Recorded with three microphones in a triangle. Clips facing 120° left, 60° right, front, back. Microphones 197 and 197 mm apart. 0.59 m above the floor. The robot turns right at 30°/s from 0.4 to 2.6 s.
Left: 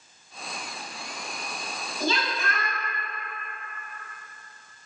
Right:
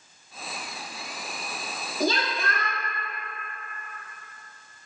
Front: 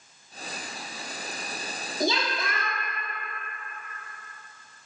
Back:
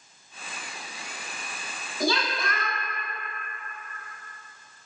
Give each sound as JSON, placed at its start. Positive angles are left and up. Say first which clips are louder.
{"t": 2.0, "sound": "a woman speaking", "louder": "right 2 dB, even", "azimuth_deg": -60, "distance_m": 0.7}